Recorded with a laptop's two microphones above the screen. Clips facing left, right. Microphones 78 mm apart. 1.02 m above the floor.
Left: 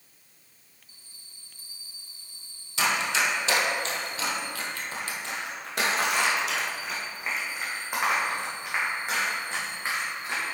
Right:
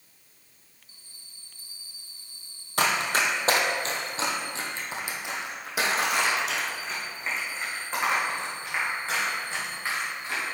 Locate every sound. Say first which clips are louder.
2.8 s running footsteps: right 1 dB; 50° right (ahead or behind), 1.5 m; by 10.4 s 20° left (ahead or behind), 4 m